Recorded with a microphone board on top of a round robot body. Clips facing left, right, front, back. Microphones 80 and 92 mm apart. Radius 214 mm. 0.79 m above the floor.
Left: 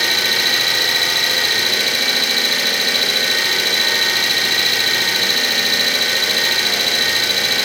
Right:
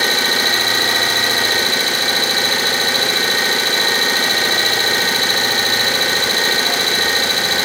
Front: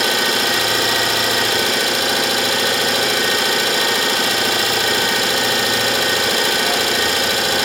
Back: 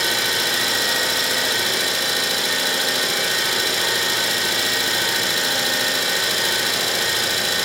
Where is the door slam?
I don't hear a door slam.